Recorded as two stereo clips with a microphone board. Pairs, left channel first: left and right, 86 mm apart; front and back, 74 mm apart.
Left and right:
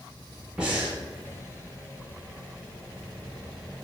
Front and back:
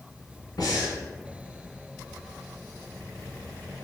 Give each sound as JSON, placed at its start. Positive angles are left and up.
{"t": 0.6, "sound": "breathing", "azimuth_deg": -10, "distance_m": 0.9}